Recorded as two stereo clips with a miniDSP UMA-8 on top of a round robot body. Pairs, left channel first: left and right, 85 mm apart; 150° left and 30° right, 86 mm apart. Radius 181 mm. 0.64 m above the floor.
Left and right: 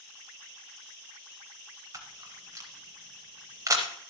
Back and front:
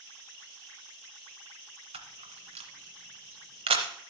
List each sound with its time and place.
1.9 s a camera shutter: 35° right, 0.7 m